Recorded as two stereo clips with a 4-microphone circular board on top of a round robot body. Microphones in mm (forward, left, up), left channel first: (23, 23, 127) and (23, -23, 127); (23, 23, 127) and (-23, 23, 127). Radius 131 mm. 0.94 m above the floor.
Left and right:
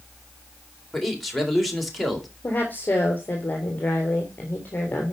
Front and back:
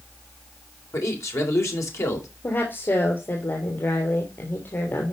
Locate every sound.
0.9 s a man speaking: straight ahead, 3.5 m
2.4 s a woman speaking: 40° left, 3.5 m